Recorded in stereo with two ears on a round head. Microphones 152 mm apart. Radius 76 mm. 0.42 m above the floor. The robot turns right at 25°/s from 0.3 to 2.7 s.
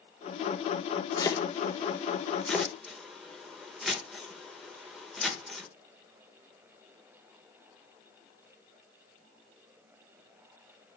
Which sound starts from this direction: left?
Chopping, at 1.2 s.